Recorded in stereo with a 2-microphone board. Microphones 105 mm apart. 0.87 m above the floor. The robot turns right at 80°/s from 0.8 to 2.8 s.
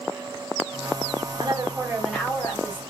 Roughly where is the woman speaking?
Ahead right.